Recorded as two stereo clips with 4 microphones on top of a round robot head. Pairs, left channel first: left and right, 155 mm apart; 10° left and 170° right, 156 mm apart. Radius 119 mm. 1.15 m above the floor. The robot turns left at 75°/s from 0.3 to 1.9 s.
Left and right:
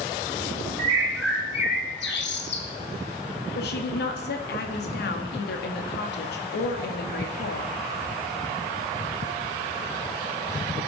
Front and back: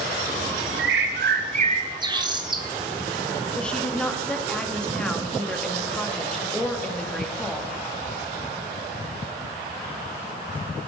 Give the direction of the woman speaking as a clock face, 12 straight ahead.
9 o'clock.